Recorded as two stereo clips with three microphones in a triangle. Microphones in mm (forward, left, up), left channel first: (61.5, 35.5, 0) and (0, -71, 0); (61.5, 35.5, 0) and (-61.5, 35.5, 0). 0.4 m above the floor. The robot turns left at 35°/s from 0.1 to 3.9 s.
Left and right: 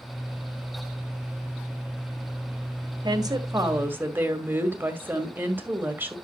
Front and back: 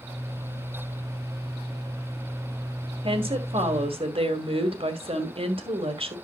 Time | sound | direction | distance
3.0 | a woman speaking | 160° right | 2.0 m